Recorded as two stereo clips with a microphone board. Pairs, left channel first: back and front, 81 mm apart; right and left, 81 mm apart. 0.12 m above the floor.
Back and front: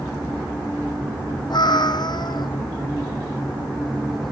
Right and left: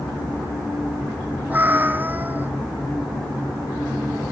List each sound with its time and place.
1.5 s a cat meowing: 155° left, 0.9 m